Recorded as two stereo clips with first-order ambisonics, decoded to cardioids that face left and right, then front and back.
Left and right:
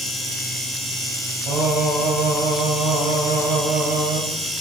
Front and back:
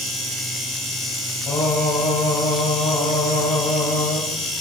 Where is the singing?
50° right, 6 m.